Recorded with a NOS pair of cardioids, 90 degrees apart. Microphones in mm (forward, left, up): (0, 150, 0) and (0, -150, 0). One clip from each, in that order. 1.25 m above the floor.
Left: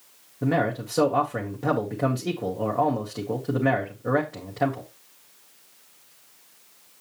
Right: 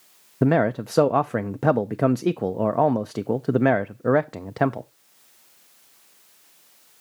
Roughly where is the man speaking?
Ahead right.